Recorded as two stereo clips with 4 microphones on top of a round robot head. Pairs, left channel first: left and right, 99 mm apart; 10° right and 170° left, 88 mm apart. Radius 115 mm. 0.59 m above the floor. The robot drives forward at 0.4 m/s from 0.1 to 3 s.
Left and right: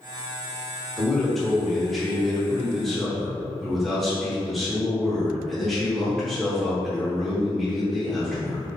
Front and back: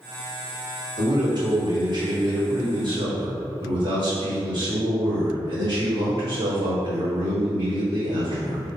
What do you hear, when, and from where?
1.0 s a man speaking: straight behind, 1.6 m